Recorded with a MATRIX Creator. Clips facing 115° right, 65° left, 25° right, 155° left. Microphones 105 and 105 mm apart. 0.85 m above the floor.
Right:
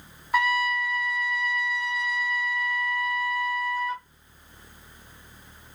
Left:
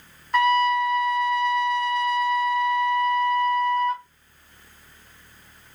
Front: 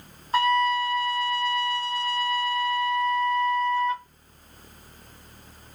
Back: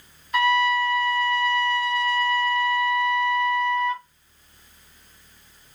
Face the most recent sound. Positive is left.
turn(degrees=-35)